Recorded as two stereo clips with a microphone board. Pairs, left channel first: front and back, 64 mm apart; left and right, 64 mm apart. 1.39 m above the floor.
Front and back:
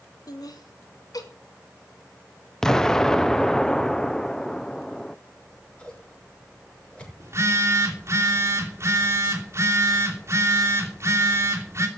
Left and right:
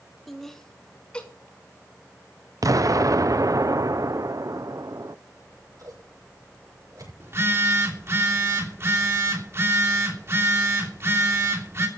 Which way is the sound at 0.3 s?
Straight ahead.